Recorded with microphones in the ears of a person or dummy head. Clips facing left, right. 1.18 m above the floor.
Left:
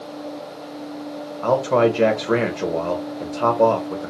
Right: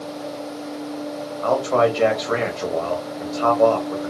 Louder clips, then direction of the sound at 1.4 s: Left 1 dB; 40° left (ahead or behind).